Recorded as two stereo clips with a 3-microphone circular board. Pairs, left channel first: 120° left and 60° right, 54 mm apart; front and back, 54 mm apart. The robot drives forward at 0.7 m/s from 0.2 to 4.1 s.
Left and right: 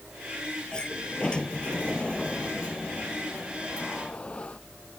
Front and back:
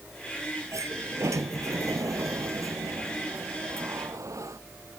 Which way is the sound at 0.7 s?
165° right.